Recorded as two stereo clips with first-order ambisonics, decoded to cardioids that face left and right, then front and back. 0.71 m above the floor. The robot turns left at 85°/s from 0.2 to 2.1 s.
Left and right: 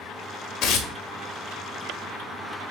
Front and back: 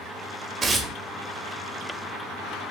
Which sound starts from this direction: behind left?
Tearing paper, at 0.6 s.